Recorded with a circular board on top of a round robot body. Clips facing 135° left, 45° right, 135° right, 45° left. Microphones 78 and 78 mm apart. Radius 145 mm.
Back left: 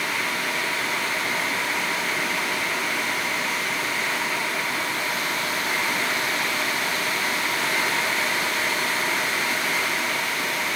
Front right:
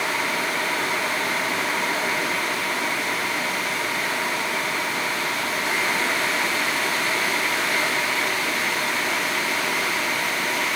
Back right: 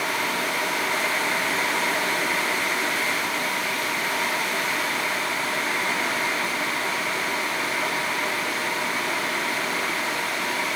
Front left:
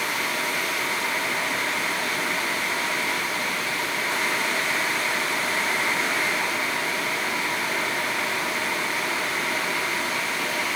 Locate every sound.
Only background noise.